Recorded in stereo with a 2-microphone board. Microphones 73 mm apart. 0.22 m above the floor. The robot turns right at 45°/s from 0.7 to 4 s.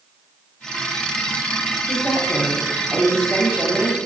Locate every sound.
1.9 s a woman speaking: 10° left (ahead or behind), 1.0 m; by 4.0 s 20° right (ahead or behind), 1.0 m